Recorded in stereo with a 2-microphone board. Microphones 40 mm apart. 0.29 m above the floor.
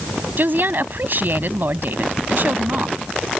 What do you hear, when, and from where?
0.4 s a woman speaking: 55° right (ahead or behind)